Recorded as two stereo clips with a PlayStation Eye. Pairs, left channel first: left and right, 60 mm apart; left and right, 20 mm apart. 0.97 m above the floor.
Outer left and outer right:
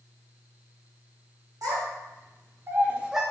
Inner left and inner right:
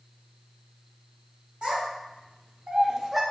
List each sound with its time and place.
1.6 s a child speaking: 70° right (ahead or behind), 1.1 m; by 3.2 s 5° right (ahead or behind), 0.5 m